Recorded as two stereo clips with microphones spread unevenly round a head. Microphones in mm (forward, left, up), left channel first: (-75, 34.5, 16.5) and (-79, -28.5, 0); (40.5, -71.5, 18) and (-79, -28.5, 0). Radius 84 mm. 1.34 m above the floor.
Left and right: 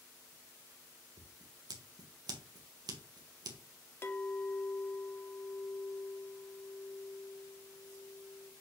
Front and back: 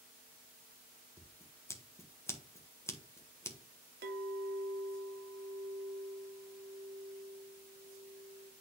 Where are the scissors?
90° right, 1.6 m.